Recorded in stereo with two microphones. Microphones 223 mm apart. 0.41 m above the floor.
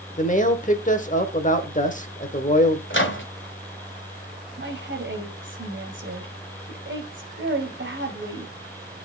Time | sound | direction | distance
0.2 | a man speaking | 35° left (ahead or behind) | 1.1 m
2.9 | a microwave | 60° left (ahead or behind) | 1.5 m
4.6 | a woman speaking | 60° right (ahead or behind) | 1.8 m